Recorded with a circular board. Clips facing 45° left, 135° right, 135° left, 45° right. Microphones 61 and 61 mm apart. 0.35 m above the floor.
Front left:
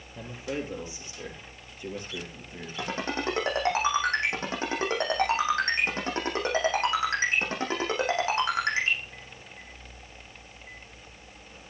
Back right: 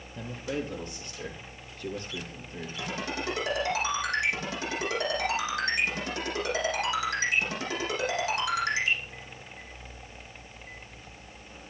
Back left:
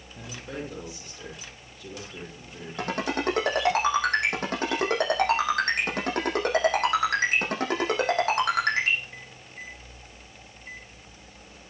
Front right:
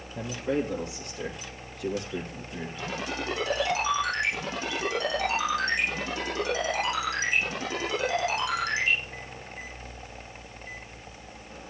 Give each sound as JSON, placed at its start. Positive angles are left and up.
{"t": 0.1, "sound": "a man speaking", "azimuth_deg": -30, "distance_m": 8.5}
{"t": 2.8, "sound": "a ringtone", "azimuth_deg": 95, "distance_m": 8.0}